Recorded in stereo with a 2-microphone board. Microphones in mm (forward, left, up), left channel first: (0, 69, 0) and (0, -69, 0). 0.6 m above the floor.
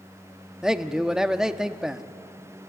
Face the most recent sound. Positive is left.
turn(degrees=-5)  # may be behind; listen again after turning